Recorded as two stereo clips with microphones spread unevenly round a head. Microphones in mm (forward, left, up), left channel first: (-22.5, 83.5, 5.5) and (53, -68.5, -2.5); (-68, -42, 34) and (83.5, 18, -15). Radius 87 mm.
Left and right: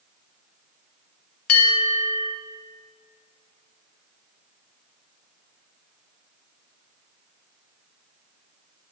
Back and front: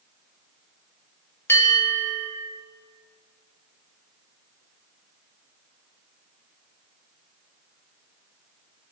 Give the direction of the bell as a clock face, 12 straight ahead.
8 o'clock.